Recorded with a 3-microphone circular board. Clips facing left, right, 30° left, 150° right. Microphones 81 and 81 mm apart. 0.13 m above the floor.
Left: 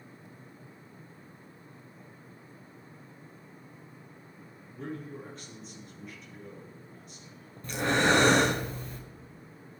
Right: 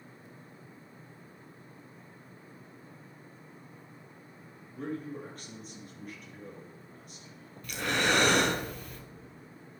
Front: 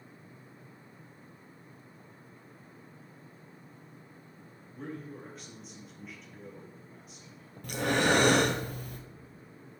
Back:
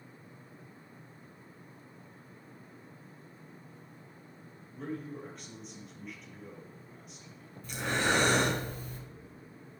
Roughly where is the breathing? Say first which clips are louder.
Left 4 dB, front 4 dB; ahead left.